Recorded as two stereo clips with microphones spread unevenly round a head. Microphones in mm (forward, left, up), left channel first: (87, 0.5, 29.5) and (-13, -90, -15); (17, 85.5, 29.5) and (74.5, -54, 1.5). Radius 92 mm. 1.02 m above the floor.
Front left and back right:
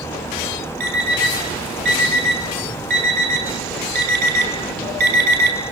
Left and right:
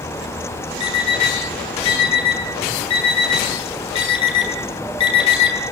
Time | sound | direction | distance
0.8 | an alarm clock | 175° left | 3.5 m